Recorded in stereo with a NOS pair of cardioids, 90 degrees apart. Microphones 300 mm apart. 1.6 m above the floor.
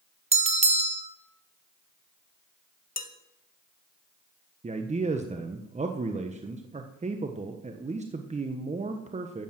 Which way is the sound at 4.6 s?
20° right.